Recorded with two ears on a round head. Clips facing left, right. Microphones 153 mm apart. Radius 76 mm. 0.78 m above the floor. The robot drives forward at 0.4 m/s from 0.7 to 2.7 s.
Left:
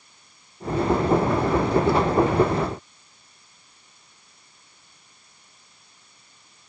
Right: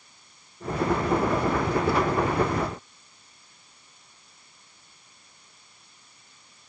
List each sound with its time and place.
Only background noise.